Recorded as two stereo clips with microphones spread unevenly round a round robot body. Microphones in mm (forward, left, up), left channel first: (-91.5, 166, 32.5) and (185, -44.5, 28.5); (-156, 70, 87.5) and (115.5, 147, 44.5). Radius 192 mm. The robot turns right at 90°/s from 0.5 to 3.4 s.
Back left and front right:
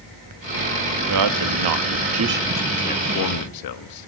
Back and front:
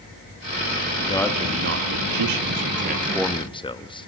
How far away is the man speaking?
About 1.3 m.